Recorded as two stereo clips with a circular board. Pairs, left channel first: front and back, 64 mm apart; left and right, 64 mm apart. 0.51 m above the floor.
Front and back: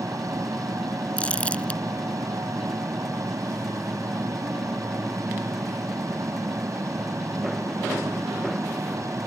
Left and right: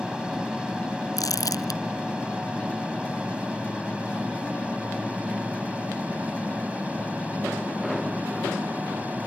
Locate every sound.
0.0 s an aircraft: 165° right; by 9.3 s 155° right
1.2 s crumpling: 70° left